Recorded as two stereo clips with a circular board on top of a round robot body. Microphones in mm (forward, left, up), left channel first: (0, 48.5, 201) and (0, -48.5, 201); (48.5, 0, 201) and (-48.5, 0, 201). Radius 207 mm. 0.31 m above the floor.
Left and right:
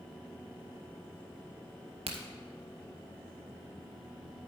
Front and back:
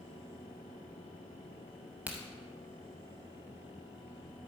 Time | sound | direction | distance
2.1 | a crack | 105° right | 0.6 m